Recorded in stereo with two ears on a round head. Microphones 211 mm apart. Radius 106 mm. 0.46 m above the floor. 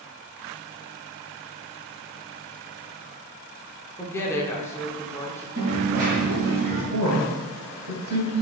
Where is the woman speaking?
10° left (ahead or behind), 0.9 m.